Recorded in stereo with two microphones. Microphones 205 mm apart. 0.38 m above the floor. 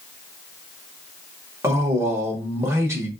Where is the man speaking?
15° right (ahead or behind), 0.9 m.